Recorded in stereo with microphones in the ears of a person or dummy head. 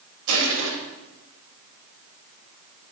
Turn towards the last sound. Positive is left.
turn(degrees=-85)